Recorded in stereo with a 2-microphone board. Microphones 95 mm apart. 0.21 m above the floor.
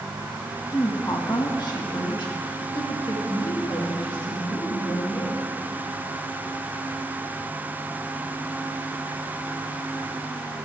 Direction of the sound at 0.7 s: 35° left (ahead or behind).